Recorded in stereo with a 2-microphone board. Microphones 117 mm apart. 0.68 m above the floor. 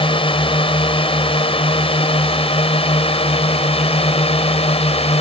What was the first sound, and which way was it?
A drone, 50° left (ahead or behind).